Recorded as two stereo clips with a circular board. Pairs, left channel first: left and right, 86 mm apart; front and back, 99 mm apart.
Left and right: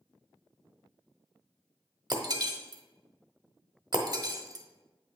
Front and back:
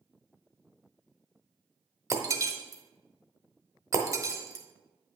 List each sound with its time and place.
2.1 s breaking glass: 125° right, 0.8 m